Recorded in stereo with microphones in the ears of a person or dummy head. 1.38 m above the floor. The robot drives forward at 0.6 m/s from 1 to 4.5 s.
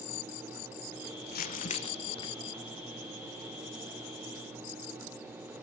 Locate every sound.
1.3 s crumpling: 50° left (ahead or behind), 0.6 m; by 2.3 s 25° left (ahead or behind), 1.1 m